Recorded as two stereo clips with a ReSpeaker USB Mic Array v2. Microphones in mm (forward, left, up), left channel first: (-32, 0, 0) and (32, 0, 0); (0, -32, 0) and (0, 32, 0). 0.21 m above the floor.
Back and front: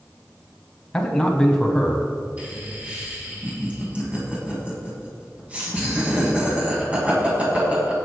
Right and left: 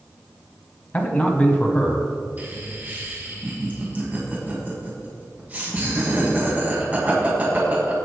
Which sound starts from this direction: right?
A man speaking, at 0.9 s.